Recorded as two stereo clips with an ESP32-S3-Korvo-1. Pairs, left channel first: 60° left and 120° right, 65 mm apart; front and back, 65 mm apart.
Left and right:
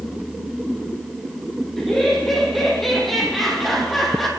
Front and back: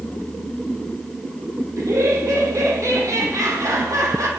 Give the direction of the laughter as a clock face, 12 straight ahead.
7 o'clock.